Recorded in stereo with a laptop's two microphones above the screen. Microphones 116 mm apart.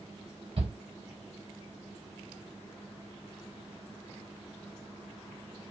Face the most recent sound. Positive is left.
turn(degrees=-50)  # may be behind; listen again after turning